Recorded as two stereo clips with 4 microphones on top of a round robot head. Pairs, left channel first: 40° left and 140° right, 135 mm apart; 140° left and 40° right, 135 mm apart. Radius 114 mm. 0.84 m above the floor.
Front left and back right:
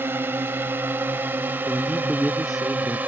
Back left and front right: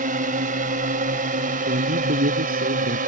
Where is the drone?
65° right; by 3.1 s 60° right.